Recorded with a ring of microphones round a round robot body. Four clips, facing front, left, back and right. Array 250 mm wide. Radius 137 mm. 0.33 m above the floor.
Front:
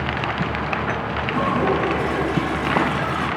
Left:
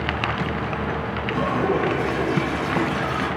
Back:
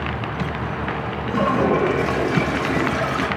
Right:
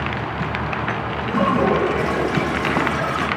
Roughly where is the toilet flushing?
Behind right.